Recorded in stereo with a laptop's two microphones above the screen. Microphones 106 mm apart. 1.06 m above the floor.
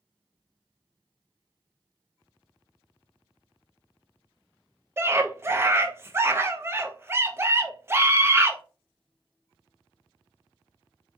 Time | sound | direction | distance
5.0 | a scream | 25° right (ahead or behind) | 0.5 m